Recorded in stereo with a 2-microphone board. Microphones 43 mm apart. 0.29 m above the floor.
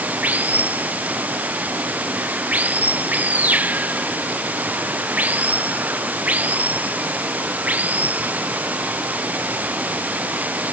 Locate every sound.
0.0 s running water: 35° right (ahead or behind)